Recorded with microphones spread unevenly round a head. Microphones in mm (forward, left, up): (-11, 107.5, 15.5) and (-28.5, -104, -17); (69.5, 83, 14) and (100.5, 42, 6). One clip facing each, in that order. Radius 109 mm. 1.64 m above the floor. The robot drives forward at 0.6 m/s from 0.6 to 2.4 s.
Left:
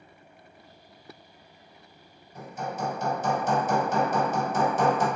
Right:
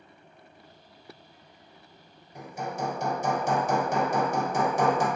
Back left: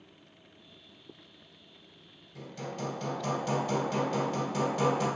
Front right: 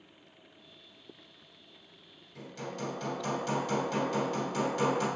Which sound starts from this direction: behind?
Hammering, at 2.4 s.